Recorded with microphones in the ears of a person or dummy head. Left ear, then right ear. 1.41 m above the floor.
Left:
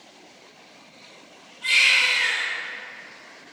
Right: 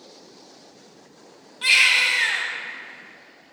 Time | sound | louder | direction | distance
1.6 | a baby crying | right 1 dB | 65° right (ahead or behind) | 1.0 m